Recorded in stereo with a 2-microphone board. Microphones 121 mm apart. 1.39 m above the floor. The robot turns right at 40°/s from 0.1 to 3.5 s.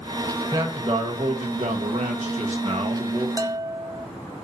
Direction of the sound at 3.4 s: 30° right (ahead or behind).